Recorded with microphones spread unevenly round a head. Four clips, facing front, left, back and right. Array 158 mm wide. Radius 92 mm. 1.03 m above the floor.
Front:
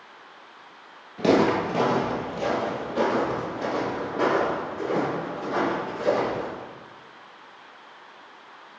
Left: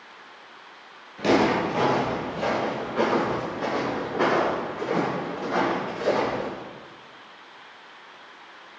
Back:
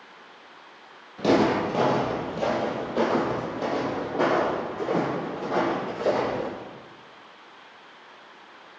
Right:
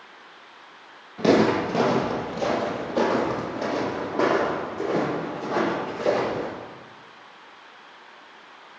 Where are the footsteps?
130° right, 1.1 m; by 6.5 s 150° right, 5 m.